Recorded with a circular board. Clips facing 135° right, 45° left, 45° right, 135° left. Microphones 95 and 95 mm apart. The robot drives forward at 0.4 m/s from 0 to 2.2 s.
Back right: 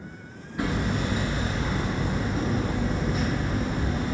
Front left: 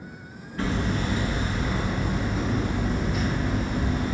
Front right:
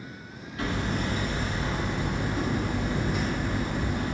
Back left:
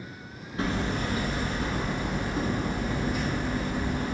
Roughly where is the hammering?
Behind.